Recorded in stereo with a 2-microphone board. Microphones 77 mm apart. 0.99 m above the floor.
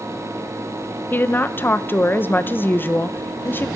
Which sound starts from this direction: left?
A woman speaking, at 1.1 s.